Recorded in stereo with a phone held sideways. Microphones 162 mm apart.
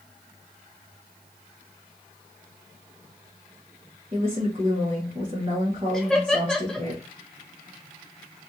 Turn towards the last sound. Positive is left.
turn(degrees=5)  # may be behind; listen again after turning